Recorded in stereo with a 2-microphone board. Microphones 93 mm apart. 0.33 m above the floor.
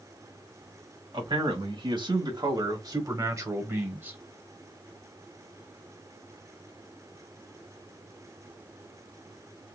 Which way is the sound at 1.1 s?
60° right (ahead or behind).